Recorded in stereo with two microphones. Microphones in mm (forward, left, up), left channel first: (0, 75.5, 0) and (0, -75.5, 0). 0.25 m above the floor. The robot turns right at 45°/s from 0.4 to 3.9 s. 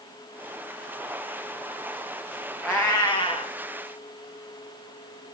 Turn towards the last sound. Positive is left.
turn(degrees=60)